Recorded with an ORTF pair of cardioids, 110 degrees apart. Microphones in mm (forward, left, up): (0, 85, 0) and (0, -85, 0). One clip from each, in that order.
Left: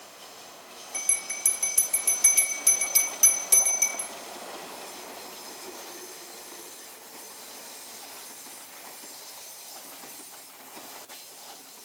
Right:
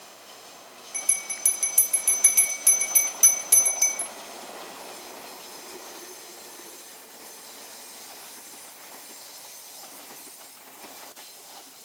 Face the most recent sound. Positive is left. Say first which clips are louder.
# even
turn(degrees=-10)